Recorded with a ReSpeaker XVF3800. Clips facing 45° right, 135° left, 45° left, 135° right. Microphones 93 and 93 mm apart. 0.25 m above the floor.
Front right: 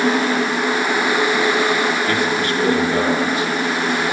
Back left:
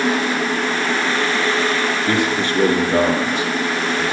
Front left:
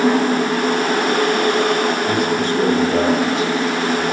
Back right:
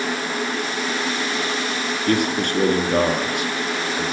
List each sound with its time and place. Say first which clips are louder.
2.1 s a man speaking: even, front left 3 dB; 160° right, 3.5 m